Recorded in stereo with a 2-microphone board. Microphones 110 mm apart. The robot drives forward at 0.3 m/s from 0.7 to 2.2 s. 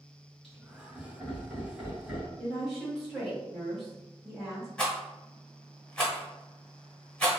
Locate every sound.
0.4 s laughter: 5° right (ahead or behind), 1.2 m; by 2.3 s centre (ahead or behind), 1.5 m
2.4 s a woman speaking: 5° right (ahead or behind), 1.6 m
4.8 s a rattle: 10° left (ahead or behind), 1.0 m